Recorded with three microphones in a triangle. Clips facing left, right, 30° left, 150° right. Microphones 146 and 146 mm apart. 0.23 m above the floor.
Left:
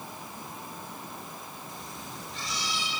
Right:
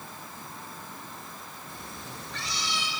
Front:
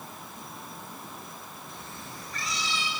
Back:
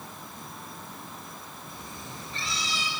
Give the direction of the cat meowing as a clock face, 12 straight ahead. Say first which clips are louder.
Even, back 2 dB; 2 o'clock.